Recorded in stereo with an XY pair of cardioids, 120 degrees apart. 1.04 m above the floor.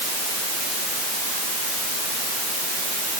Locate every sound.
Only background noise.